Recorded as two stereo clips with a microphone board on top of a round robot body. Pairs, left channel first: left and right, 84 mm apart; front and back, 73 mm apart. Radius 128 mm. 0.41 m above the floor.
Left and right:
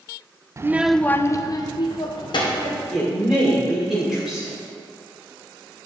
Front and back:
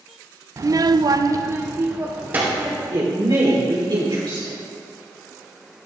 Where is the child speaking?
140° right, 0.5 m; by 2.8 s 115° left, 1.6 m.